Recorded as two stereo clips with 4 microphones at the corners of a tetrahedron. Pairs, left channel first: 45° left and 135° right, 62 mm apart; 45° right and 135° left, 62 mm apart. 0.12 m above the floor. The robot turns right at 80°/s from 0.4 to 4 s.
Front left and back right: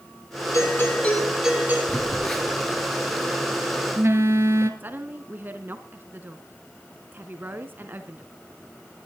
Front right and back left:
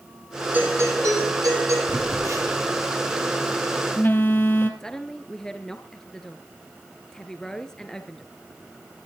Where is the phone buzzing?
100° left, 2.5 m; by 4.7 s 95° right, 2.5 m.